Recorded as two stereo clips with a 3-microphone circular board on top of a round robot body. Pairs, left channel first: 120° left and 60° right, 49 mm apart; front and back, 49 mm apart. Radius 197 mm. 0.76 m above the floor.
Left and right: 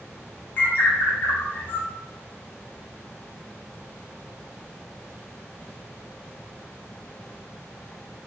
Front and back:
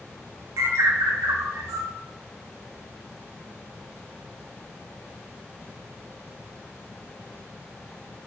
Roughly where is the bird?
Behind.